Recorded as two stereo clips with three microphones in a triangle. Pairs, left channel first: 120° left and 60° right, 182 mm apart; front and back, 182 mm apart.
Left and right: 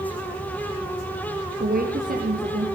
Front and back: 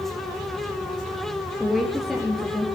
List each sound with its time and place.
1.6 s a woman speaking: 90° right, 3 m